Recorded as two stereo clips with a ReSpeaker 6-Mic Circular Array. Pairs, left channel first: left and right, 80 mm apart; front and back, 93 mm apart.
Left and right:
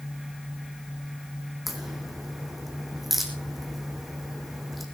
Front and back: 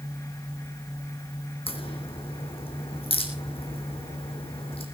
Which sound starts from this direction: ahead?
A crack, at 1.7 s.